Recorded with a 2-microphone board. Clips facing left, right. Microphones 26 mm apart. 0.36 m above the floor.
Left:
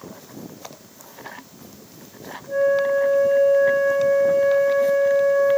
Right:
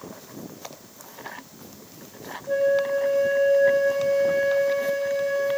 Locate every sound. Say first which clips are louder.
2.5 s a flute: left 3 dB; 40° right (ahead or behind), 1.1 m